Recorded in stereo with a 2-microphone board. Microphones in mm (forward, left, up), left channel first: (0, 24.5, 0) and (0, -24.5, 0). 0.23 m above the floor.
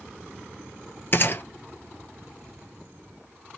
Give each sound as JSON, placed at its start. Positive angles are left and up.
{"t": 1.1, "sound": "a gunshot", "side_deg": 45, "distance_m": 1.4}